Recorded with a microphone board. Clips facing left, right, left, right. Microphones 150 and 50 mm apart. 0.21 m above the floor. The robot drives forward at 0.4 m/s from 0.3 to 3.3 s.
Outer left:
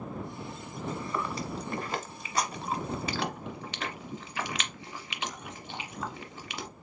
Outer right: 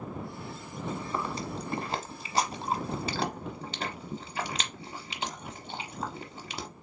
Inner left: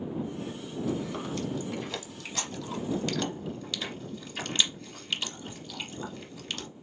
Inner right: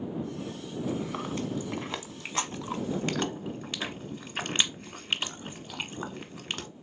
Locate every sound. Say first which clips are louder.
0.9 s chewing: even, even; 25° right (ahead or behind), 1.2 m; by 6.7 s 30° right (ahead or behind), 0.9 m